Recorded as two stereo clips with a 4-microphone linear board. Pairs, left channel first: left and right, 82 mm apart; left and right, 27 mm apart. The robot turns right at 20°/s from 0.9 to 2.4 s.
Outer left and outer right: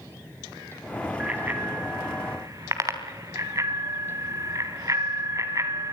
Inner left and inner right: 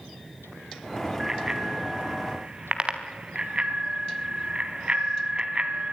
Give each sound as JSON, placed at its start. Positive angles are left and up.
{"t": 1.2, "sound": "a bicycle bell", "side_deg": -15, "distance_m": 3.5}